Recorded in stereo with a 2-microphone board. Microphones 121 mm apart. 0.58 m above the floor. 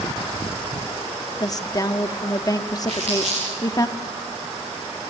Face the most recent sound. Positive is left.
turn(degrees=-65)  # may be behind; listen again after turning